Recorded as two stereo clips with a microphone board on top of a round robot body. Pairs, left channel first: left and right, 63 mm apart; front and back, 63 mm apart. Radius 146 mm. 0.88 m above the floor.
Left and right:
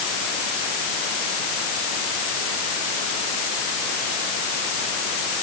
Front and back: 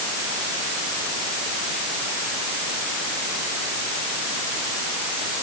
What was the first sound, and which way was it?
Only background noise.